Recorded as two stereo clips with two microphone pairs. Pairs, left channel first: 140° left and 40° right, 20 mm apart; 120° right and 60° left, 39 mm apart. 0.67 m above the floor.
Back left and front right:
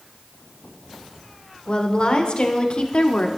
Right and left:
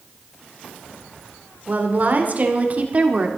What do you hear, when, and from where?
1.7 s a woman speaking: 100° left, 2.5 m; by 3.3 s 115° left, 1.6 m